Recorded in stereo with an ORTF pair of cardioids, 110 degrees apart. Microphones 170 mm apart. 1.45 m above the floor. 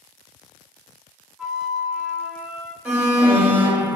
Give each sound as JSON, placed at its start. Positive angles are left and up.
{"t": 1.4, "sound": "a flute", "azimuth_deg": -5, "distance_m": 0.5}
{"t": 2.9, "sound": "an alarm", "azimuth_deg": -10, "distance_m": 0.6}